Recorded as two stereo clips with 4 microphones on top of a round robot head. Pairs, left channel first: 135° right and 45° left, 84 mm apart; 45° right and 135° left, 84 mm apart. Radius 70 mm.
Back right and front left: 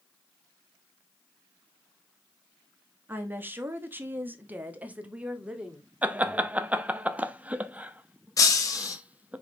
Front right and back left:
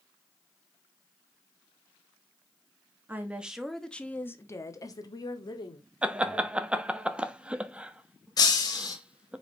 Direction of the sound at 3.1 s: 90° left.